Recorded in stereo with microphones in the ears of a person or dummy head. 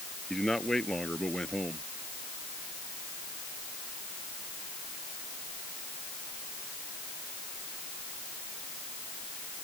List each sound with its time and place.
0.3 s a man speaking: 5° left (ahead or behind)